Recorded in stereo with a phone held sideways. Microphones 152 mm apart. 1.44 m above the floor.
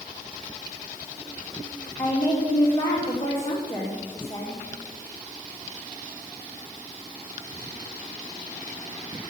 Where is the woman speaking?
35° left (ahead or behind), 3 m.